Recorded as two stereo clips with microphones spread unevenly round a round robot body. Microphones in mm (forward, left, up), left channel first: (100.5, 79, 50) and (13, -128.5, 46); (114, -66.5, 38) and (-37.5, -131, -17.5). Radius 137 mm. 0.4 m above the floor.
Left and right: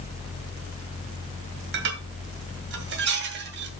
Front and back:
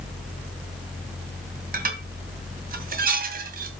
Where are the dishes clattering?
150° right, 1.9 m.